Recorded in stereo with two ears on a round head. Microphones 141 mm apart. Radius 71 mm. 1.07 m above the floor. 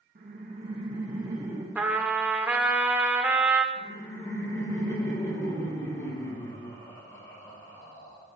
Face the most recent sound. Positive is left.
turn(degrees=20)  # may be behind; listen again after turning